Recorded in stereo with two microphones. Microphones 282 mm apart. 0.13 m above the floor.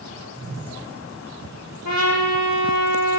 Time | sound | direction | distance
0.3 | a whoosh | 35° right (ahead or behind) | 1.8 m
1.9 | a trumpet | 65° left (ahead or behind) | 0.8 m